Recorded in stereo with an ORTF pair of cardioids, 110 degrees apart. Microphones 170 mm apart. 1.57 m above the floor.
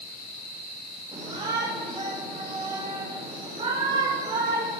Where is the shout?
40° right, 7.5 m.